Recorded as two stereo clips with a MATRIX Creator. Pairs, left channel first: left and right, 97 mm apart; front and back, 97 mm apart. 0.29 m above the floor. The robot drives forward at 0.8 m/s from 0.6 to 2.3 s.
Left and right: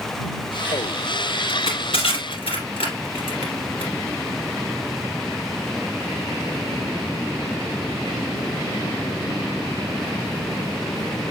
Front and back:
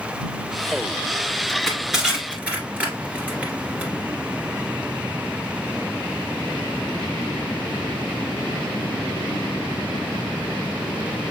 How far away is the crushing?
About 1.8 m.